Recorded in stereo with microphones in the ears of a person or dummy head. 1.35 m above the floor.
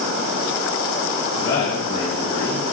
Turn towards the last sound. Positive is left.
turn(degrees=25)  # may be behind; listen again after turning